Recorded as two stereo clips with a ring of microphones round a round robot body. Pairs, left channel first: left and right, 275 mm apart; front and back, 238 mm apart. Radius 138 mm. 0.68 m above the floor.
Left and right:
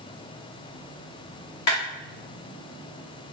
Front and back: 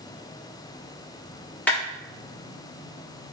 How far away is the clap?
About 1.5 m.